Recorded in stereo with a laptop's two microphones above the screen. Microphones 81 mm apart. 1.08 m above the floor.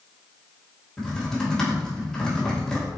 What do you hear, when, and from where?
1.0 s typing on a keyboard: 5° left (ahead or behind), 2 m